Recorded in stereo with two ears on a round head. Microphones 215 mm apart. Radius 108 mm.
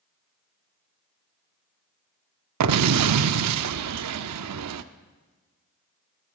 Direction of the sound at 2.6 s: 75° right (ahead or behind).